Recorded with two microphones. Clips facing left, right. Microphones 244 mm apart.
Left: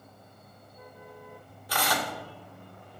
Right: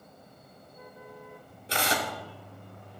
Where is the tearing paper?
25° right (ahead or behind), 1.4 m.